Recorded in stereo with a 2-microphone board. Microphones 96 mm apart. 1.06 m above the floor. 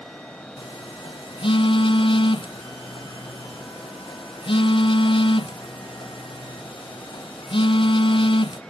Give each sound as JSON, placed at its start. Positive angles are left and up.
{"t": 0.6, "sound": "a phone buzzing", "side_deg": 60, "distance_m": 0.7}